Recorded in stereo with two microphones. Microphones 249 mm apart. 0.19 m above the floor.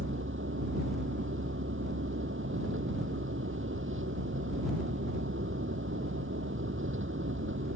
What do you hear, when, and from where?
0.0 s a vehicle: 60° right (ahead or behind)